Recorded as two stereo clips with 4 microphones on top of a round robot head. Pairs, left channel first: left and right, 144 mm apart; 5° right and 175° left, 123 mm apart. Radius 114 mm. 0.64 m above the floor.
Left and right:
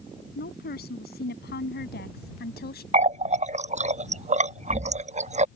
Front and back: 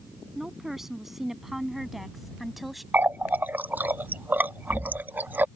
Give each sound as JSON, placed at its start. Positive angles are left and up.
{"t": 0.3, "sound": "a woman speaking", "azimuth_deg": 90}
{"t": 2.9, "sound": "a running tap", "azimuth_deg": -110}